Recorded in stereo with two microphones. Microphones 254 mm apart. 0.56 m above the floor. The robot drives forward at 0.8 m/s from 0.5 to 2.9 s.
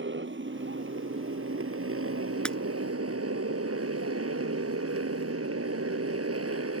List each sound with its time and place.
0.0 s a motorcycle: 50° right (ahead or behind); by 6.8 s 70° right (ahead or behind)
2.5 s breaking glass: 5° left (ahead or behind)